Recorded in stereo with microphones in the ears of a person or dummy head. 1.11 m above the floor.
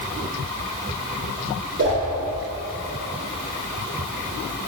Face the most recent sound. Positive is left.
turn(degrees=-55)  # may be behind; listen again after turning